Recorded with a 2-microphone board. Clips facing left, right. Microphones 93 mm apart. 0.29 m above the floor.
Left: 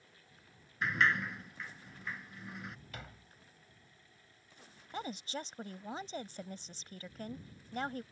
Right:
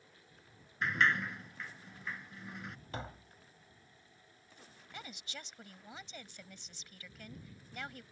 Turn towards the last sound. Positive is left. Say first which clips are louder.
# left 9 dB
turn(degrees=40)  # may be behind; listen again after turning